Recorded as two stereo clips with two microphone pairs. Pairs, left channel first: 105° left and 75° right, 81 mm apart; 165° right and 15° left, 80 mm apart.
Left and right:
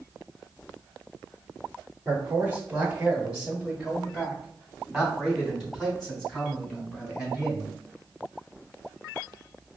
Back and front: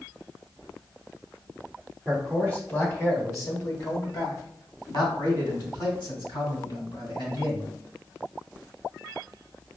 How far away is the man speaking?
About 1.4 m.